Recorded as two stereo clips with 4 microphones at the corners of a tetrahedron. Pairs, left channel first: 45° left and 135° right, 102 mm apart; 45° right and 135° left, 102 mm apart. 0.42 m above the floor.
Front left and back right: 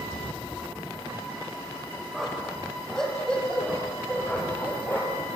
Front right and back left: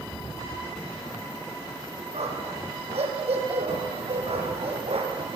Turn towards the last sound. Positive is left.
turn(degrees=115)